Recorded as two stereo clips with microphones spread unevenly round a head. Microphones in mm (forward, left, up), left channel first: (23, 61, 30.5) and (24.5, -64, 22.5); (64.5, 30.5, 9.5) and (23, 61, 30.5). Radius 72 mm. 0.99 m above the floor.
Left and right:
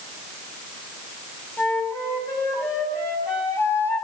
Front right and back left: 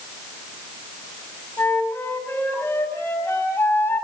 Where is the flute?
20° left, 4 m.